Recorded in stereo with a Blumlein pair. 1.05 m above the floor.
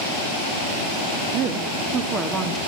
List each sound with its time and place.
1.3 s a woman speaking: 35° right, 2 m; by 2.6 s 15° right, 3 m